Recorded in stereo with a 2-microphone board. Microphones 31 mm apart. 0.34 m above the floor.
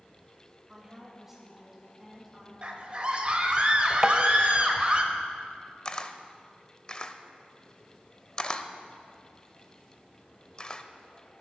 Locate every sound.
0.7 s a woman speaking: 15° right (ahead or behind), 1.0 m; by 2.5 s 5° right (ahead or behind), 3.5 m
2.6 s a scream: 35° right (ahead or behind), 1.3 m
4.0 s tapping: 20° right (ahead or behind), 0.6 m
5.8 s a camera shutter: 30° left (ahead or behind), 0.6 m